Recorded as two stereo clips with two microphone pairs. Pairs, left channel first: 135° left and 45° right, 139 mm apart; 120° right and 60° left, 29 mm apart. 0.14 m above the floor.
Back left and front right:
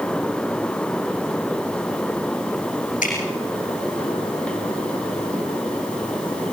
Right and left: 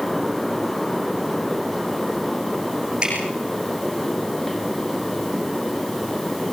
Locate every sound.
3.0 s dripping: 120° left, 8 m